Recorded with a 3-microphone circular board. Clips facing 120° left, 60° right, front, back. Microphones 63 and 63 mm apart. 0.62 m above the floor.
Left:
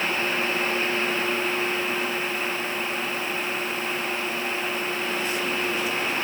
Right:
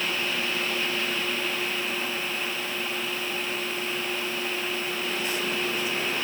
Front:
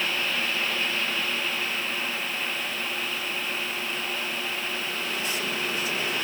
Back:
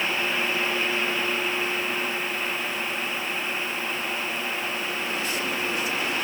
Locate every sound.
Only background noise.